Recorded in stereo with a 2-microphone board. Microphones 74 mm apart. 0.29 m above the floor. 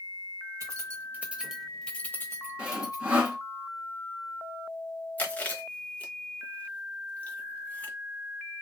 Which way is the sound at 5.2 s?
20° left (ahead or behind).